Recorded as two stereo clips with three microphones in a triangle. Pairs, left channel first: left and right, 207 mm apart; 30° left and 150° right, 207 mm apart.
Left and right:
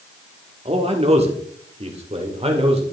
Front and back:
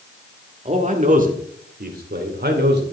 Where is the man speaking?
125° right, 1.6 m; by 2.8 s 145° right, 2.5 m.